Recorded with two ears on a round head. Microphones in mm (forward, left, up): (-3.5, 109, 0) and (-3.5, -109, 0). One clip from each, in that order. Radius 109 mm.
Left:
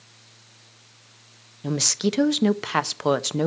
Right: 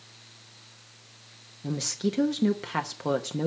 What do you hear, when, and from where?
1.6 s a woman speaking: 40° left (ahead or behind), 0.6 m